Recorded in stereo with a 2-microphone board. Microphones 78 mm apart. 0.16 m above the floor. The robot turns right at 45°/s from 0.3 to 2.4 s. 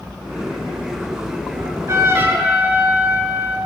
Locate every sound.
1.6 s a trumpet: 60° right, 0.8 m; by 3.6 s 25° right, 0.8 m